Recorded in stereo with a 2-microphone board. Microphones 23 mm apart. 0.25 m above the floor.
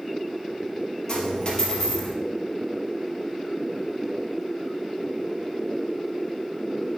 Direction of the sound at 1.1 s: 35° left (ahead or behind).